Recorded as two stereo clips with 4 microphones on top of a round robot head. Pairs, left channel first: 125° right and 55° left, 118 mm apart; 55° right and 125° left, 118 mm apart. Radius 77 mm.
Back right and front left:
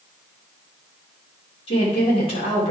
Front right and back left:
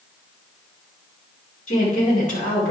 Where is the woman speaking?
80° right, 4.5 m.